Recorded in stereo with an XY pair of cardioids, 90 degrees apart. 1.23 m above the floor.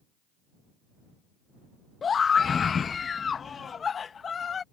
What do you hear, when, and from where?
2.0 s a scream: 50° left